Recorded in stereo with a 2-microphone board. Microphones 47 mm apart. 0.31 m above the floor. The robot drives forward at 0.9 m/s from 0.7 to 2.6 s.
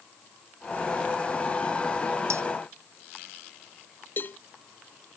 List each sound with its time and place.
2.3 s breaking glass: 75° right (ahead or behind)
4.2 s a cowbell: 45° left (ahead or behind)